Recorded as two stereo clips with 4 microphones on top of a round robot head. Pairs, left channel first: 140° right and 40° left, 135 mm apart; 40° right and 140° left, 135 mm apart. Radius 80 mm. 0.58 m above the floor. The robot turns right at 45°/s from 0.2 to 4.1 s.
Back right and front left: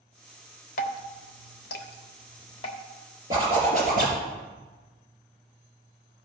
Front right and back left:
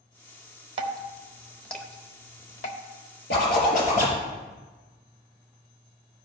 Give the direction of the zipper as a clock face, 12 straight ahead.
1 o'clock.